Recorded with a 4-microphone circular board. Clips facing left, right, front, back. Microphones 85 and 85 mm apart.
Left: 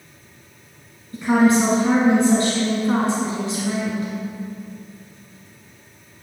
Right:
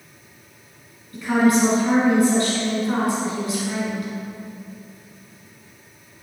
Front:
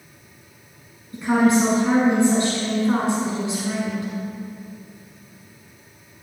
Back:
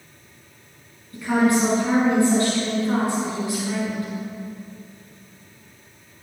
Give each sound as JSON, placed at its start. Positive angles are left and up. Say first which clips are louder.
{"t": 1.1, "sound": "a woman speaking", "louder": "left 2 dB, front 2 dB", "azimuth_deg": 50, "distance_m": 1.3}